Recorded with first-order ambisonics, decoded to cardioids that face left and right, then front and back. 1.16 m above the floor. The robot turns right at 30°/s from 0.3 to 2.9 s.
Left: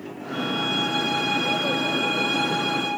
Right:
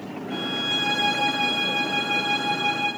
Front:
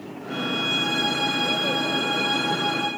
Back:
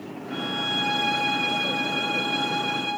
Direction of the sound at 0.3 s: 35° right.